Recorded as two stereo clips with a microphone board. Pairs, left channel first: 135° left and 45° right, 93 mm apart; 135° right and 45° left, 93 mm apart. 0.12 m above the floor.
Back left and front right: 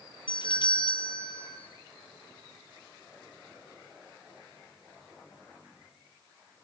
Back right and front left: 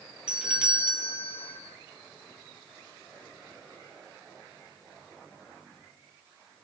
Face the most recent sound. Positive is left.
turn(degrees=125)